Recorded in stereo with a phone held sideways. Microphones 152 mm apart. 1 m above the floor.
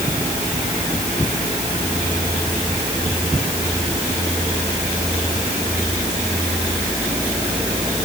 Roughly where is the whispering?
No whispering in this recording.